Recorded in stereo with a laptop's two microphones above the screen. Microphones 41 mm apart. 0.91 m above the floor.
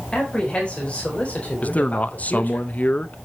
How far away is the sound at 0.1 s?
About 4 m.